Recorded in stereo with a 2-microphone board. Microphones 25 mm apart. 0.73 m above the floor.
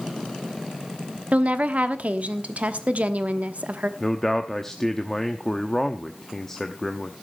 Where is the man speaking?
20° left (ahead or behind), 0.8 m.